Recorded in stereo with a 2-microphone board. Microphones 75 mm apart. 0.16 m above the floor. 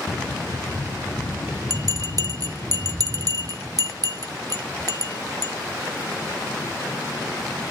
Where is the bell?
55° right (ahead or behind), 0.7 m.